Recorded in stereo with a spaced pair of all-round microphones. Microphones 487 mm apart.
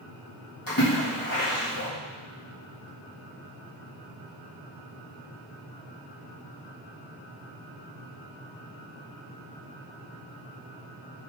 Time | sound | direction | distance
0.7 | a splash | 45° left (ahead or behind) | 3.5 m